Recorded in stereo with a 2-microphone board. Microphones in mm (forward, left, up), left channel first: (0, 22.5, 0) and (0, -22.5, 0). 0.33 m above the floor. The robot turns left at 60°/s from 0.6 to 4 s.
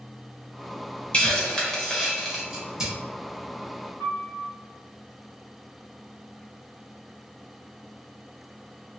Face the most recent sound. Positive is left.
turn(degrees=-25)  # may be behind; listen again after turning